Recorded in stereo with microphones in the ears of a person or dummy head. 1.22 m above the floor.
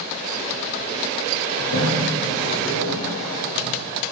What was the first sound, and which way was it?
A toilet flushing, 60° left (ahead or behind).